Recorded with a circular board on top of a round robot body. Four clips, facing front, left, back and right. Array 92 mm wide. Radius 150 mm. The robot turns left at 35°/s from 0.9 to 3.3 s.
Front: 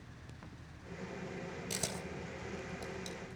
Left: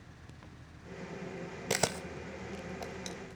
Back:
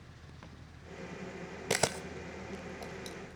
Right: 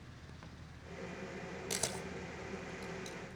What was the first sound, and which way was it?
A camera shutter, 145° left.